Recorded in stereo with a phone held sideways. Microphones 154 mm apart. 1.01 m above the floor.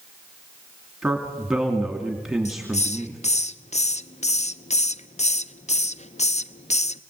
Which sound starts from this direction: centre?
A man speaking, at 1.0 s.